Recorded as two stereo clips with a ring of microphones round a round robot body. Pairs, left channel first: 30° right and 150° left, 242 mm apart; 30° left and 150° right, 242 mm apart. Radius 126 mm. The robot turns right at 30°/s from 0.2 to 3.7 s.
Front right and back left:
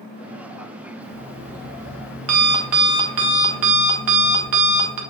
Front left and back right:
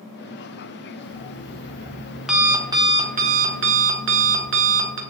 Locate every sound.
1.0 s an alarm clock: 85° left, 1.3 m; by 5.0 s 165° left, 1.3 m